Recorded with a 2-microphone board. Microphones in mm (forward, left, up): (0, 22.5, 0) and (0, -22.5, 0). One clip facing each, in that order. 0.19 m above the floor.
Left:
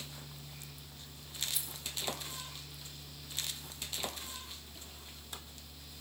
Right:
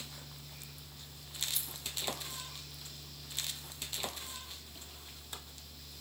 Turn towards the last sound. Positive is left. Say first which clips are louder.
# even
turn(degrees=5)  # may be behind; listen again after turning